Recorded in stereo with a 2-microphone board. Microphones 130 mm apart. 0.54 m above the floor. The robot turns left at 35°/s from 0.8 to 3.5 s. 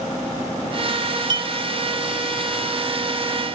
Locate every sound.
1.3 s a clink: 35° right (ahead or behind)